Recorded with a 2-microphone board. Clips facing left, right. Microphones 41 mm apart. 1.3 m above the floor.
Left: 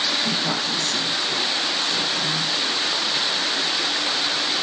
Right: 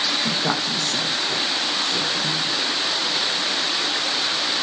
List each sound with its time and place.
0.2 s a woman speaking: 40° right (ahead or behind), 0.8 m; by 2.5 s 85° right, 1.8 m